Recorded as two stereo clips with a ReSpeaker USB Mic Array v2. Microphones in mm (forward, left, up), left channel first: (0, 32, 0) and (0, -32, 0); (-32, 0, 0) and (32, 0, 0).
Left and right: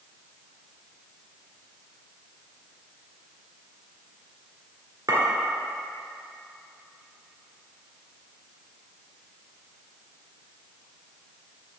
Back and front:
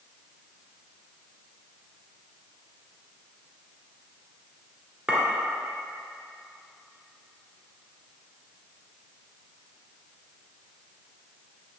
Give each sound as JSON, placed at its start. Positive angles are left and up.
{"t": 5.1, "sound": "a clink", "azimuth_deg": -65, "distance_m": 1.8}